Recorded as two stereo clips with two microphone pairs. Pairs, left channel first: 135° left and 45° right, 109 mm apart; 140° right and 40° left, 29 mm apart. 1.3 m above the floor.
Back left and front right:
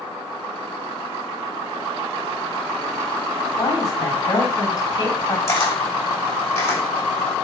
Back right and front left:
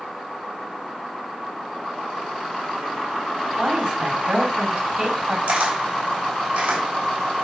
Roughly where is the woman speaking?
Left.